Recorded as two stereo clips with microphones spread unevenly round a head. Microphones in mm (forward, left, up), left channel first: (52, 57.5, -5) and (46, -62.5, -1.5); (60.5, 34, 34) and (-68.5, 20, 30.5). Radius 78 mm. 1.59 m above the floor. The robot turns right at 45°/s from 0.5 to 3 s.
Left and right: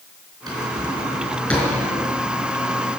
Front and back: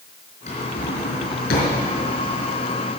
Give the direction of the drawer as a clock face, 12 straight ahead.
1 o'clock.